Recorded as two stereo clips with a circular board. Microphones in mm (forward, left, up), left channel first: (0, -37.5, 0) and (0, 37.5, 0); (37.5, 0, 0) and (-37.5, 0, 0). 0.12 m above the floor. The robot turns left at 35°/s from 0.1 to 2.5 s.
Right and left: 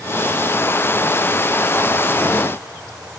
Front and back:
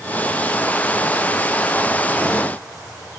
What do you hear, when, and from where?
Only background noise.